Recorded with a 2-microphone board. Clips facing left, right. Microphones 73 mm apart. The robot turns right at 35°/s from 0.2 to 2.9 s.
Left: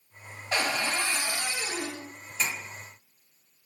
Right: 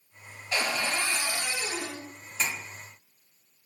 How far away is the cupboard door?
About 0.8 m.